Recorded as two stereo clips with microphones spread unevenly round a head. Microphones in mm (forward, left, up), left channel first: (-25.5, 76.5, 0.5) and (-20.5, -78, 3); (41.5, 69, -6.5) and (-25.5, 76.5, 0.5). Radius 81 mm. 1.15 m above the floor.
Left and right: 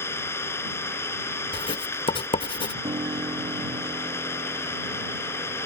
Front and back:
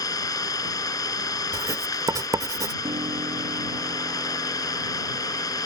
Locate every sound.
0.0 s an engine running: 15° left
1.5 s writing: 145° left
2.8 s a piano: 150° right